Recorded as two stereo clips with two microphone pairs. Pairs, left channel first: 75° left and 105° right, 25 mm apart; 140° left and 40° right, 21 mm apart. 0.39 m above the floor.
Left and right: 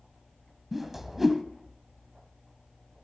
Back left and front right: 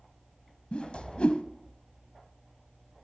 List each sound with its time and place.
0.7 s a whoosh: straight behind, 0.6 m